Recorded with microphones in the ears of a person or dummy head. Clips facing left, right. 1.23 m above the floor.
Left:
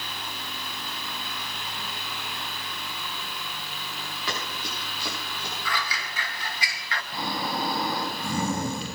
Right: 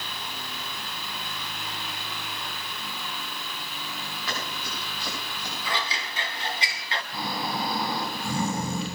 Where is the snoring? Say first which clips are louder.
Left 1 dB; 5° left (ahead or behind), 8 m.